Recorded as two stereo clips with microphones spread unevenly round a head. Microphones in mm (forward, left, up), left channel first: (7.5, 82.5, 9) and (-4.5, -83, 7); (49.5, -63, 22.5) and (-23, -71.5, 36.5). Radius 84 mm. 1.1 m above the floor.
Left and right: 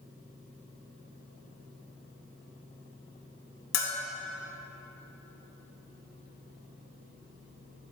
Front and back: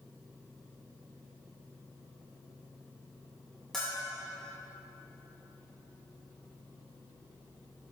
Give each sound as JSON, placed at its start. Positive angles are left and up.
{"t": 3.7, "sound": "a bell", "azimuth_deg": 95, "distance_m": 1.7}